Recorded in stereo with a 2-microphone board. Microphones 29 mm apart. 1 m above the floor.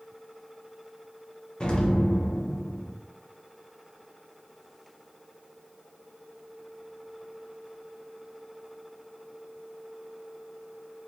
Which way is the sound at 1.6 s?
30° left (ahead or behind).